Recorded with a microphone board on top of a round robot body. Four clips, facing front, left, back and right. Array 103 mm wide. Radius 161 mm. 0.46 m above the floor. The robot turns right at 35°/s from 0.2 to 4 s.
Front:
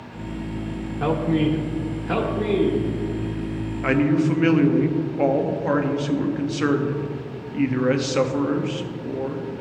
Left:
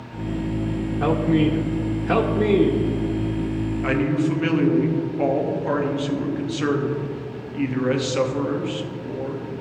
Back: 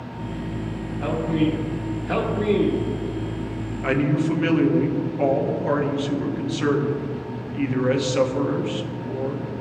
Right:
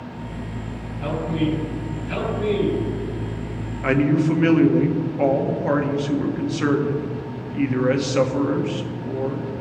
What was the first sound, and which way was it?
A man speaking, 35° left.